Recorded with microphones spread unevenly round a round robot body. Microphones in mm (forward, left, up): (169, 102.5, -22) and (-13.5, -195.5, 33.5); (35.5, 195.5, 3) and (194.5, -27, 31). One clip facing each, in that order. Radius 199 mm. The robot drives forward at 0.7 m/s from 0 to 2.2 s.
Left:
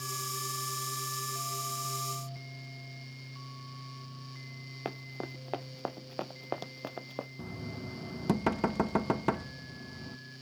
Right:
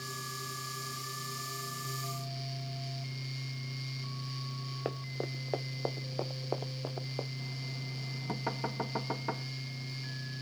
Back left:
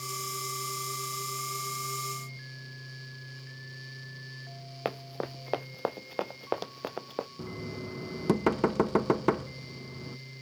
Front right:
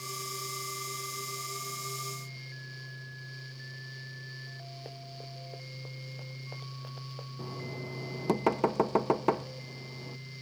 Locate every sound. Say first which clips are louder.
4.8 s running footsteps: right 2 dB, back left 15 dB; 135° left; by 7.3 s 115° left
7.4 s knocking: left 4 dB, back left 2 dB; 60° left